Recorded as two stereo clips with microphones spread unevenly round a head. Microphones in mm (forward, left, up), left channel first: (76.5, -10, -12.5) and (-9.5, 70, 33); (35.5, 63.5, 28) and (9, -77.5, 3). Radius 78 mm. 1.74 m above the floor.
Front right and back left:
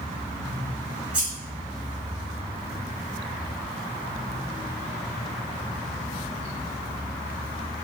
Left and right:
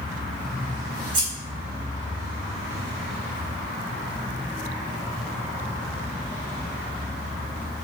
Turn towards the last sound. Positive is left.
turn(degrees=-165)